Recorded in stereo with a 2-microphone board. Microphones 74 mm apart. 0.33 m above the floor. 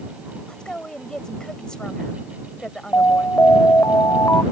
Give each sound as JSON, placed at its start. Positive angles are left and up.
{"t": 0.5, "sound": "a woman speaking", "side_deg": 10}
{"t": 2.9, "sound": "an alarm", "side_deg": 35}